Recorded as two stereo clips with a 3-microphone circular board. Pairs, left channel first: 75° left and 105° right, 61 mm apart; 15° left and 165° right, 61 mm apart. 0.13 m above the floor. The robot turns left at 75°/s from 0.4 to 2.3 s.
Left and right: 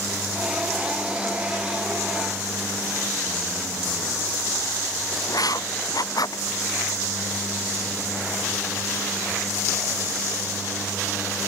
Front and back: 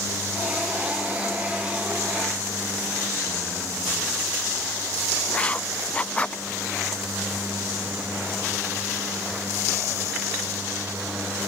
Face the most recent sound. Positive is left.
turn(degrees=85)